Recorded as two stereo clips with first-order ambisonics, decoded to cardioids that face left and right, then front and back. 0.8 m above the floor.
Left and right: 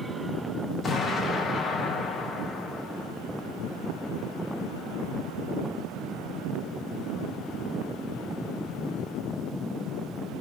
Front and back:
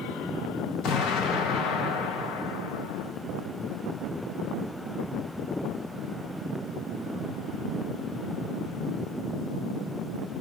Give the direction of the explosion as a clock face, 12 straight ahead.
11 o'clock.